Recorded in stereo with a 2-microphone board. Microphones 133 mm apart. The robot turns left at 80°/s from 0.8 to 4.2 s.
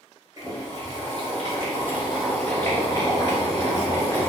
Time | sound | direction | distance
0.4 | boiling | 55° right | 1.6 m